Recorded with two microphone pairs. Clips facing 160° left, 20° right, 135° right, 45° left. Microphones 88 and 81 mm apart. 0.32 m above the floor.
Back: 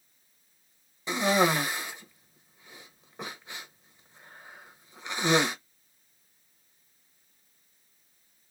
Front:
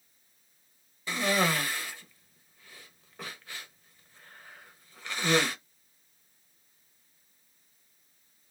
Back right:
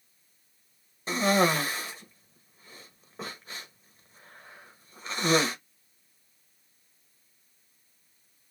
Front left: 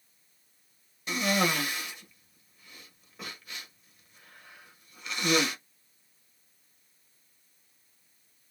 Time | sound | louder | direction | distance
1.1 | a cough | back 4 dB, back right 4 dB | 150° right | 1.0 m